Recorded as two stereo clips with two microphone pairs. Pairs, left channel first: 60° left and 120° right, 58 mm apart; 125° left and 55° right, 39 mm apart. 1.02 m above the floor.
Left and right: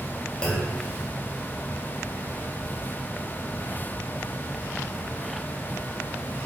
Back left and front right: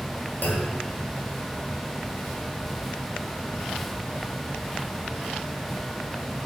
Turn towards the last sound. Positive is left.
turn(degrees=135)